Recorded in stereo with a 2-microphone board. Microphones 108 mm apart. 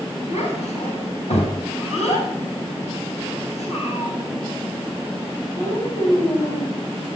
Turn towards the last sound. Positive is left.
turn(degrees=85)